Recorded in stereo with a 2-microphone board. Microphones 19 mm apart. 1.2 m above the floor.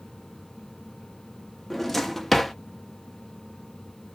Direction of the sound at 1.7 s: 10° left (ahead or behind).